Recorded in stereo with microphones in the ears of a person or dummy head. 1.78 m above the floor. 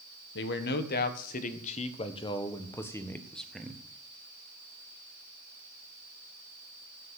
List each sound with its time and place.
0.3 s a man speaking: 60° left (ahead or behind), 1.6 m; by 3.8 s 5° right (ahead or behind), 1.7 m